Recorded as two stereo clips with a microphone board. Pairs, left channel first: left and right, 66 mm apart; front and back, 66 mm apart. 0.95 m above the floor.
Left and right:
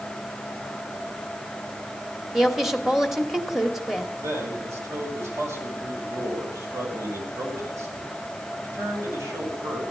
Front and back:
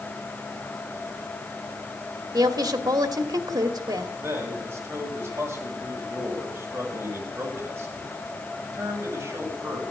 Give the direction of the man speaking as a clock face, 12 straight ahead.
4 o'clock.